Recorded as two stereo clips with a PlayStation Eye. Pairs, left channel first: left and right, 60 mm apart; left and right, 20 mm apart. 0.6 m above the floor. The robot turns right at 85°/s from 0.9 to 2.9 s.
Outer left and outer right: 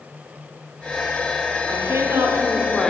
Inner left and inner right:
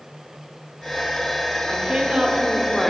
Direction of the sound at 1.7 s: 90° right.